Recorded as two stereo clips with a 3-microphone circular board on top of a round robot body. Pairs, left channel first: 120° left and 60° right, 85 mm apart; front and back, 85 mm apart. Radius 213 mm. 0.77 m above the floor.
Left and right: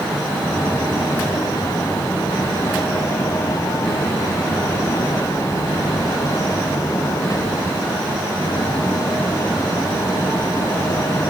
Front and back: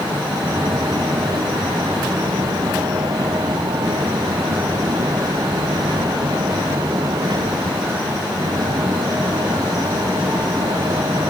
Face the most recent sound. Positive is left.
No sound to turn to.